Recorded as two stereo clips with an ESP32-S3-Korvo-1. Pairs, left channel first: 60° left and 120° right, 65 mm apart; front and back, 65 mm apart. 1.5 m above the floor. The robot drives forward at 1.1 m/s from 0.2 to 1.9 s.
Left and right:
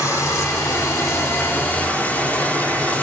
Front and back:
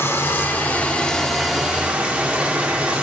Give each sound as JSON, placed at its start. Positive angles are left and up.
{"t": 0.0, "sound": "running water", "azimuth_deg": 40, "distance_m": 1.9}